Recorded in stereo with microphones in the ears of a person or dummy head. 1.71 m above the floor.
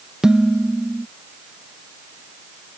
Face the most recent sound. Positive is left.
turn(degrees=-5)  # may be behind; listen again after turning